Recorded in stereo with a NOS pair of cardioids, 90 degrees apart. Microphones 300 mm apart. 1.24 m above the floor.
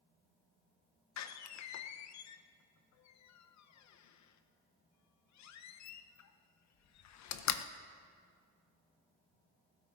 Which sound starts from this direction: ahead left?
A door slam, at 1.2 s.